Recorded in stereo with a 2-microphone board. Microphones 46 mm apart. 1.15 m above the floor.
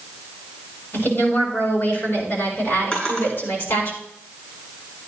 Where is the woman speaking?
60° left (ahead or behind), 6.5 m; by 3.9 s 55° left (ahead or behind), 4.5 m.